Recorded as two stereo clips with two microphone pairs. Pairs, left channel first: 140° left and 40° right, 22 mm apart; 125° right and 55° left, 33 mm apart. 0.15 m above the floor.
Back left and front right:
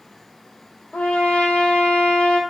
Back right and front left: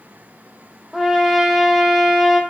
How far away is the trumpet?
About 0.9 m.